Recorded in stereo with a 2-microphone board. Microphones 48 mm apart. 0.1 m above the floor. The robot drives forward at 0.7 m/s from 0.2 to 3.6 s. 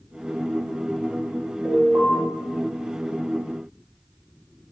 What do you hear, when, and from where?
1.6 s an alarm: 30° right (ahead or behind), 2 m